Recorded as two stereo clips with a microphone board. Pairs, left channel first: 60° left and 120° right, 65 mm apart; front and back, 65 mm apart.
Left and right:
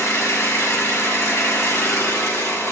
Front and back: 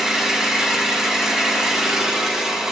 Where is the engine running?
100° left, 1.9 m.